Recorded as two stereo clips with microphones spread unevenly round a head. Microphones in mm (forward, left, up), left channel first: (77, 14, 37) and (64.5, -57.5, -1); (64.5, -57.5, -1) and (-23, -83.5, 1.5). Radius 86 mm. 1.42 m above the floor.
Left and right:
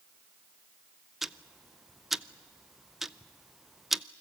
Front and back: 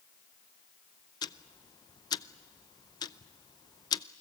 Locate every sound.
1.2 s ticking: 20° left, 0.5 m